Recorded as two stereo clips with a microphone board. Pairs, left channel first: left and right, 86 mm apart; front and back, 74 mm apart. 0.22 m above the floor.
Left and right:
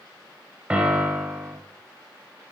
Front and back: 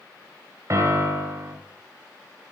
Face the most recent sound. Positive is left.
turn(degrees=-160)